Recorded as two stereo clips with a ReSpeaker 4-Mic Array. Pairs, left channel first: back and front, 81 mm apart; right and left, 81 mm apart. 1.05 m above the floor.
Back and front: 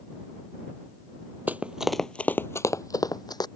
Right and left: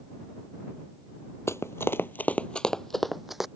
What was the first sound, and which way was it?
Running footsteps, 55° right.